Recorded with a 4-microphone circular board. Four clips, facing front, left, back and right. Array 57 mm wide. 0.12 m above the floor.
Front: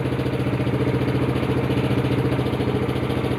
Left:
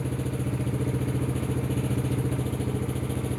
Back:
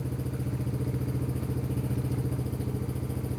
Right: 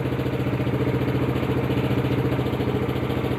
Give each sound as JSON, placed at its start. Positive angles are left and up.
{"t": 0.0, "sound": "an engine running", "azimuth_deg": -35}